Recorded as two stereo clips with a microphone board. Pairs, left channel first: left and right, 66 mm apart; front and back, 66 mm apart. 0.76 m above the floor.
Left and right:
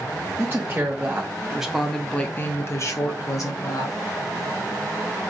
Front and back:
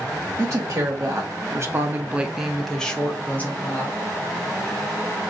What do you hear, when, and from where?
0.4 s a woman speaking: 145° right, 1.1 m; by 4.0 s 60° left, 1.2 m